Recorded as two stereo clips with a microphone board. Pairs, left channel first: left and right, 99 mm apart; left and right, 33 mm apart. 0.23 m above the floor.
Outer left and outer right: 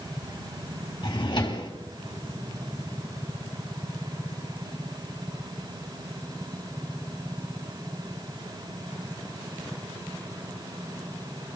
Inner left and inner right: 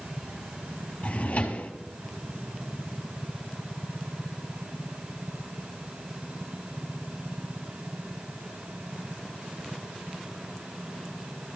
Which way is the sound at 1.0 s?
45° left (ahead or behind).